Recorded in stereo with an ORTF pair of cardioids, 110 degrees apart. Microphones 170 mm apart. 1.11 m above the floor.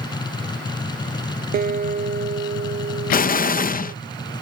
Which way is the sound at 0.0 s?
25° left.